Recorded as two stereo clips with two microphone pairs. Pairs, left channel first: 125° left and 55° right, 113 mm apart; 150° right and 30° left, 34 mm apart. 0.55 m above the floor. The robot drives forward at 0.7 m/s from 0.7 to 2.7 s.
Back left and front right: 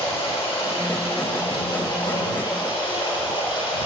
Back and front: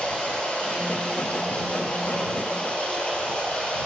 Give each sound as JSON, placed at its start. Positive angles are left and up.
{"t": 0.0, "sound": "running water", "azimuth_deg": 160, "distance_m": 6.0}